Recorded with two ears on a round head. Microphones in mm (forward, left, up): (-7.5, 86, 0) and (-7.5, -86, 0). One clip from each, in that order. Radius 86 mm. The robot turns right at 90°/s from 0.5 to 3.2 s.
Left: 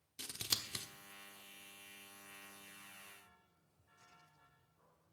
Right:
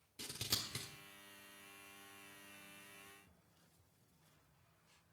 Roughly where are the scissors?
Left.